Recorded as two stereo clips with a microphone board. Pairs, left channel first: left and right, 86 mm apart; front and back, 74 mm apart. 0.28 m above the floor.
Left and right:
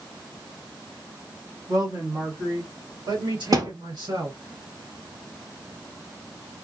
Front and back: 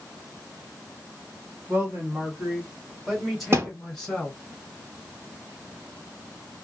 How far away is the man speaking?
About 1.7 m.